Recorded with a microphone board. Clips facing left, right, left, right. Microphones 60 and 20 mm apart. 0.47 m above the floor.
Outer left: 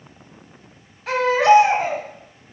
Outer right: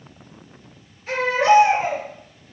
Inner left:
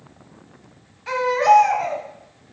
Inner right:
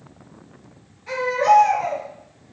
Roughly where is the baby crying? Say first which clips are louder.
Outer left 2 dB, inner left 2 dB; left.